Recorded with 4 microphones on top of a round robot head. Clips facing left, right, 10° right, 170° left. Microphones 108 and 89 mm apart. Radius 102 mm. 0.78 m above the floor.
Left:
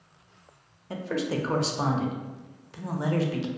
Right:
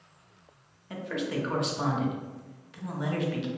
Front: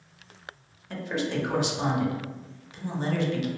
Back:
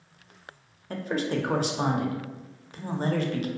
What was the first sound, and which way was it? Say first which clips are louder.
A man speaking: left 3 dB, back 1 dB; 135° left.